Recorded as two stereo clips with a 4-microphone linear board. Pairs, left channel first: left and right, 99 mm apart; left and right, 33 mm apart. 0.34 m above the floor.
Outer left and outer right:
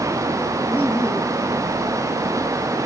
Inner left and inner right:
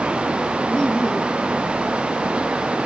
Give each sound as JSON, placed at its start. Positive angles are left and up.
{"t": 0.7, "sound": "laughter", "side_deg": 20, "distance_m": 5.5}